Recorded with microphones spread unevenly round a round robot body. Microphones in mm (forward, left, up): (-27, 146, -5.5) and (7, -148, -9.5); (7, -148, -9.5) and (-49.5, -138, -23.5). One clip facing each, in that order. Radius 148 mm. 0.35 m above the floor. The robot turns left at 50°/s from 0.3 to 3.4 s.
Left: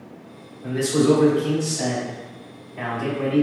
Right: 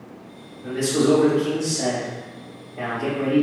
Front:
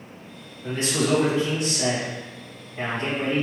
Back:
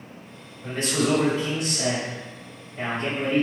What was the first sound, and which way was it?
A man speaking, 150° right.